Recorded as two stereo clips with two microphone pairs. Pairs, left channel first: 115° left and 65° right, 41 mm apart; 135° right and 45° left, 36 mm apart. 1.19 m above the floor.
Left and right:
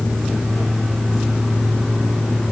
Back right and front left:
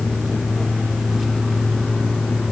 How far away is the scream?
No scream in this recording.